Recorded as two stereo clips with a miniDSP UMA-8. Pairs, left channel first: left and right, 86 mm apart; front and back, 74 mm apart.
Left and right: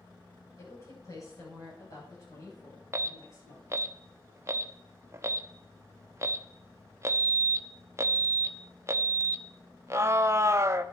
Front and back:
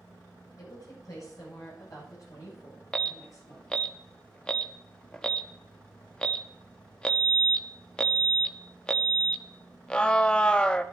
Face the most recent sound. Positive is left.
turn(degrees=-70)